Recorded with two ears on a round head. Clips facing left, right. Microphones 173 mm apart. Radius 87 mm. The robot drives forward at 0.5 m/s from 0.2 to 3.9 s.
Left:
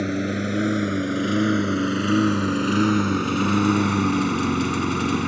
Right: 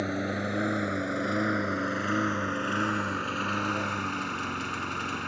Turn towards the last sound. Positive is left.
turn(degrees=60)  # may be behind; listen again after turning